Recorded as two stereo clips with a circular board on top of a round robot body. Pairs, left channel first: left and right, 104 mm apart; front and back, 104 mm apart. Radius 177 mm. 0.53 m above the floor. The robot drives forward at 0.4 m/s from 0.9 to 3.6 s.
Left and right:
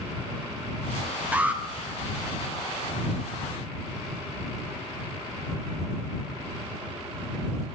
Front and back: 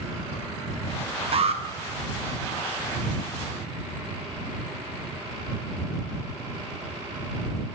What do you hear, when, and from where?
1.3 s an alarm: 165° right, 1.0 m